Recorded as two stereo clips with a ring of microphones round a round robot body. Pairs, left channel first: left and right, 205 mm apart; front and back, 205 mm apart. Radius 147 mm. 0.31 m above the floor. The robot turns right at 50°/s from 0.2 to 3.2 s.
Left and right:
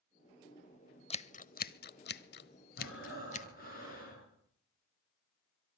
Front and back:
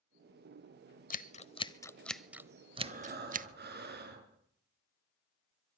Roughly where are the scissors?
Ahead left.